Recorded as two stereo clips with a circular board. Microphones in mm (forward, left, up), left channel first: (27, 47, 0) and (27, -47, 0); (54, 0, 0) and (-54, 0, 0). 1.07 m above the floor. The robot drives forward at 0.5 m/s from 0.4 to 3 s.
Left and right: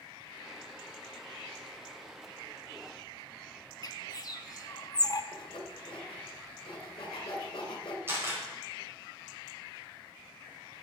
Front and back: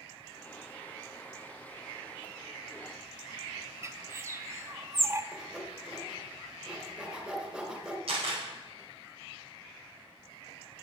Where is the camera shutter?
155° right, 5 m.